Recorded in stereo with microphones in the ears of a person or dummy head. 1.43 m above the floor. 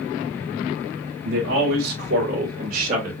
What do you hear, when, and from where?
1.2 s a man speaking: 70° right (ahead or behind), 2.5 m; by 3.1 s 35° right (ahead or behind), 2.5 m